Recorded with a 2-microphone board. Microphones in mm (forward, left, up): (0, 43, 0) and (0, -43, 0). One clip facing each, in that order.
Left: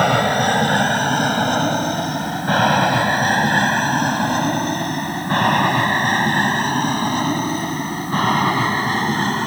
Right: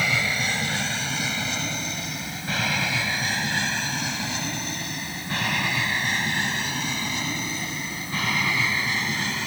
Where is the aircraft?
60° left (ahead or behind); by 9.5 s 50° left (ahead or behind).